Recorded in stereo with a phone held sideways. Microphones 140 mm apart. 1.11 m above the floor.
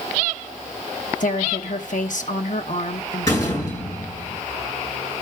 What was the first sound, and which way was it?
A woman speaking, 65° left (ahead or behind).